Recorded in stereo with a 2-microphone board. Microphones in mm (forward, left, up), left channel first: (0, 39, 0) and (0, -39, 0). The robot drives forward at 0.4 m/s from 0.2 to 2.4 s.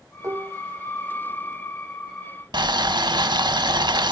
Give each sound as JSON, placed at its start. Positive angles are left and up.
{"t": 0.2, "sound": "dishes clattering", "side_deg": -50, "distance_m": 0.7}
{"t": 2.5, "sound": "boiling", "side_deg": -75, "distance_m": 0.6}